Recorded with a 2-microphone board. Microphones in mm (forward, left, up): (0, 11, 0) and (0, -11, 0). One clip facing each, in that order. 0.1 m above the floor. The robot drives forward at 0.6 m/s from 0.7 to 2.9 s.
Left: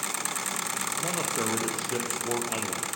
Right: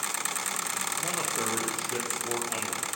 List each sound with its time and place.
1.0 s a man speaking: 15° left (ahead or behind), 4 m; by 2.9 s 20° left (ahead or behind), 3 m